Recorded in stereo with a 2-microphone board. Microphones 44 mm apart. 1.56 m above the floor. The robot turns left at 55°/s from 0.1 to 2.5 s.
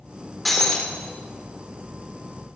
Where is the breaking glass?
5° left (ahead or behind), 1.5 m; by 0.9 s 20° left (ahead or behind), 1.5 m.